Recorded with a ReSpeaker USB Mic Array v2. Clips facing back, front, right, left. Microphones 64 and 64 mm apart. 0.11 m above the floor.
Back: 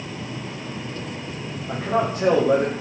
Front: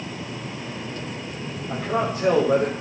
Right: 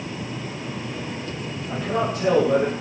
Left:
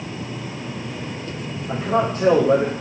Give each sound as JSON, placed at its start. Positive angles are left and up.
{"t": 1.7, "sound": "a man speaking", "azimuth_deg": 145, "distance_m": 9.5}